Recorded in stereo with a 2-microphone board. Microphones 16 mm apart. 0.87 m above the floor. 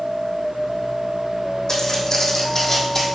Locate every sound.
1.7 s footsteps: 45° left (ahead or behind), 2.5 m; by 3.0 s 25° left (ahead or behind), 1.9 m